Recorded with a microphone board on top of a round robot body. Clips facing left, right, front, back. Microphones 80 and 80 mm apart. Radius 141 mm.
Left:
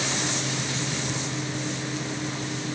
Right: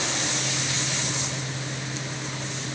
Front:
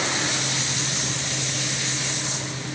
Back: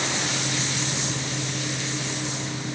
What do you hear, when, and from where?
Only background noise.